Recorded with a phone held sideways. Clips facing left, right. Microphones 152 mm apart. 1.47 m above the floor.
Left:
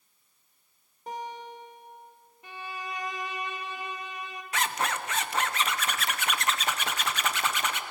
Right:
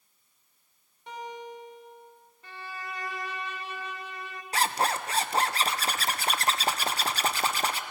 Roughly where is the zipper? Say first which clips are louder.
Right 3 dB; right.